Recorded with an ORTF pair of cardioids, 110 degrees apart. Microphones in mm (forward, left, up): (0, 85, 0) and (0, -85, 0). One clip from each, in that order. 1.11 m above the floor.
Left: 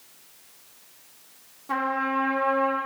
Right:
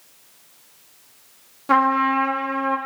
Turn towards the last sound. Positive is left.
turn(degrees=-60)